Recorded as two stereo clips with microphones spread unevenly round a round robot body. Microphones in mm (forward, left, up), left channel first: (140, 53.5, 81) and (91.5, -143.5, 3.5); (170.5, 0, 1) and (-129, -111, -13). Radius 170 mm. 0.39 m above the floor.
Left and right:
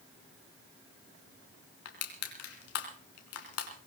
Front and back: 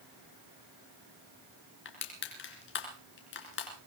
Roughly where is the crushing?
Left.